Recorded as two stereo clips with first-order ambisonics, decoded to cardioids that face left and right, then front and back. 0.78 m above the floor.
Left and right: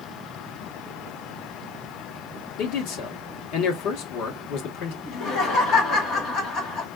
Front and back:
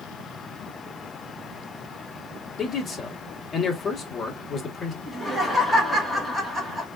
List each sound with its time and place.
2.6 s a man speaking: 70° left, 1.1 m
5.1 s laughter: 90° left, 1.0 m